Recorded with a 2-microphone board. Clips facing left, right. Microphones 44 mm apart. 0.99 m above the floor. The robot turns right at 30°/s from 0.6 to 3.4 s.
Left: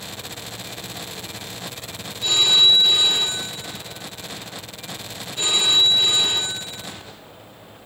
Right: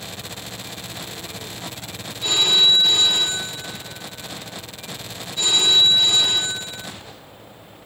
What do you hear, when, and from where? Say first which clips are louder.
2.2 s a phone ringing: left 1 dB; 5° right, 3 m; by 6.9 s 30° left, 3 m